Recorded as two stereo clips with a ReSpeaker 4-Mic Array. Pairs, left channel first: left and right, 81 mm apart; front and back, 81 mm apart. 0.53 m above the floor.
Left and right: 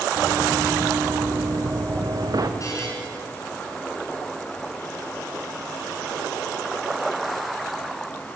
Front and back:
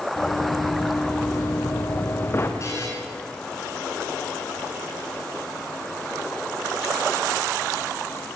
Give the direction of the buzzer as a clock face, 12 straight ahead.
10 o'clock.